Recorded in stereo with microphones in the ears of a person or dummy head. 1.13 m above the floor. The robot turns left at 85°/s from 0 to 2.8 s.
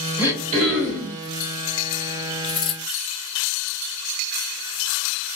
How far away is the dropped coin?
About 1.5 m.